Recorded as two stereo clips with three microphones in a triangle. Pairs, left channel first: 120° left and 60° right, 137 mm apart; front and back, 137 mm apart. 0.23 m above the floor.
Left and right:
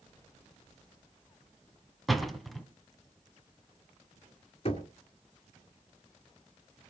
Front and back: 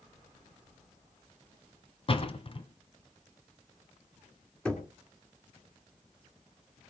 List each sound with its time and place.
2.1 s a door slam: 30° left, 1.5 m
4.7 s knocking: 80° left, 2.5 m